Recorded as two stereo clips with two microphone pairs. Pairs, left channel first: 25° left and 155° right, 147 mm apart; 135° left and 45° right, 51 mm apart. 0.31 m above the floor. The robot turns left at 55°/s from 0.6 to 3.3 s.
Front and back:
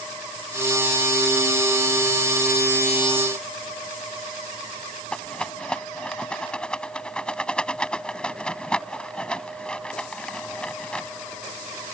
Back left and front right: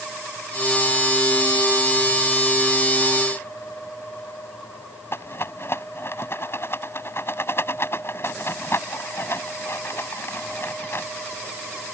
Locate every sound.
5.1 s a rattle: 105° left